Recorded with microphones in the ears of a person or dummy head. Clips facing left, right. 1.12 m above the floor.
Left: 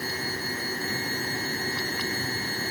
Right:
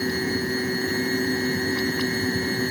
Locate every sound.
0.0 s a fan: 50° right (ahead or behind)